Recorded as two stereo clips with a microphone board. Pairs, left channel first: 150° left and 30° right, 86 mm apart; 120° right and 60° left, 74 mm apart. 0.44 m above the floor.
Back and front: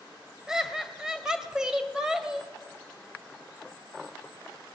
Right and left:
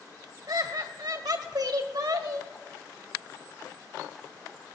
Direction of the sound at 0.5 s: 50° left.